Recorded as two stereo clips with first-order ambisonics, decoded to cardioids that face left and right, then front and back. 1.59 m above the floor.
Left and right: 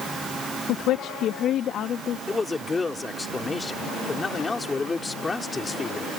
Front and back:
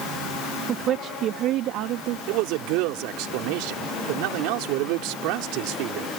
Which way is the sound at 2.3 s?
170° left.